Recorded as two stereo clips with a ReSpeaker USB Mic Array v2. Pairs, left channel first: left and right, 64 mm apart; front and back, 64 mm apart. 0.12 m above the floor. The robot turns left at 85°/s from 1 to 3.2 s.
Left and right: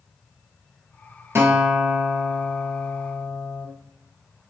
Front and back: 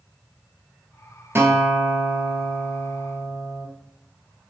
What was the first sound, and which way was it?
A guitar, 130° right.